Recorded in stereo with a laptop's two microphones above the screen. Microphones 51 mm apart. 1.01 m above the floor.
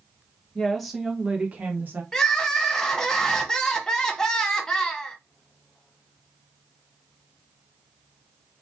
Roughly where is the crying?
Centre.